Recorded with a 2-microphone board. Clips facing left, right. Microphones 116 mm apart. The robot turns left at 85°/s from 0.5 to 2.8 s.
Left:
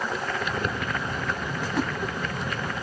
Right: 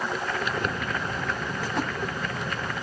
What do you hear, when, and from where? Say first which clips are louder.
1.6 s a splash: left 2 dB; 10° right (ahead or behind), 9.5 m; by 1.9 s 15° left (ahead or behind), 9.5 m